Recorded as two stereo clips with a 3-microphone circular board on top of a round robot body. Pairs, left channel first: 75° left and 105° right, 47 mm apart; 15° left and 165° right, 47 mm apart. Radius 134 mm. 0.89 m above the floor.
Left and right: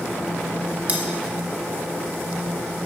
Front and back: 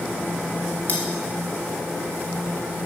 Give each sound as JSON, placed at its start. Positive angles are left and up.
{"t": 0.9, "sound": "cutlery clinking", "azimuth_deg": -45, "distance_m": 1.2}